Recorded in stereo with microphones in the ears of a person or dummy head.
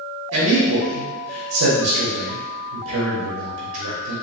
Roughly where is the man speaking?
Right.